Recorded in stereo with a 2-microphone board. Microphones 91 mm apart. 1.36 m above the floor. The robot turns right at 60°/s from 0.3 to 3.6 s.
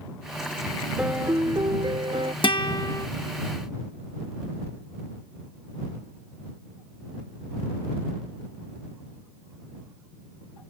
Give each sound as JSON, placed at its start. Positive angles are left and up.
{"t": 1.0, "sound": "a piano", "azimuth_deg": -165}
{"t": 2.4, "sound": "a guitar", "azimuth_deg": 110}